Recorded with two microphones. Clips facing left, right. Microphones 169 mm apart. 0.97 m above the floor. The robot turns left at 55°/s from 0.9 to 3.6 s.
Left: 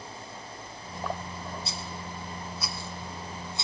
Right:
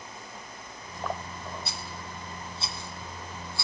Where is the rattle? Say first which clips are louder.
Left 2 dB; 65° right (ahead or behind), 1.6 m; by 3.6 s 20° left (ahead or behind), 1.6 m.